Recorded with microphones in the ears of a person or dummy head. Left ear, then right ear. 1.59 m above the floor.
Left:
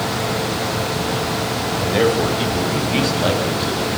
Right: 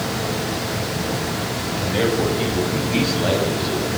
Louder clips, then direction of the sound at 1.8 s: Left 3 dB; 25° left (ahead or behind).